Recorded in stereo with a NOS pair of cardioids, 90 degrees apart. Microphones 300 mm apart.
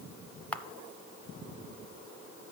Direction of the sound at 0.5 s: 5° left.